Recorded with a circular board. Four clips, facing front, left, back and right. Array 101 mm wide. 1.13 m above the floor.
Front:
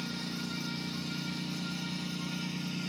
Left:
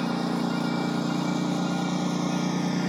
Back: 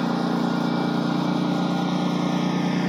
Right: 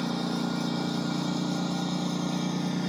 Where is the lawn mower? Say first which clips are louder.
Left 3 dB, back 16 dB; 170° left; by 2.9 s 165° left.